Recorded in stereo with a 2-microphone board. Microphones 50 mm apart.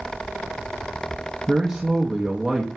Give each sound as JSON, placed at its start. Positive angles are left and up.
{"t": 1.5, "sound": "a man speaking", "side_deg": -10, "distance_m": 0.6}